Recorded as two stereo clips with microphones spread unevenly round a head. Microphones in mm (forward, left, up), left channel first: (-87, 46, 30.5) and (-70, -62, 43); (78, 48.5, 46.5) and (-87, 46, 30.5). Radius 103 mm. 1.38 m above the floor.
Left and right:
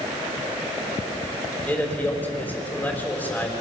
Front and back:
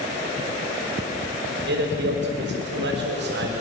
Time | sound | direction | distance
1.7 | a man speaking | 175° left | 5.5 m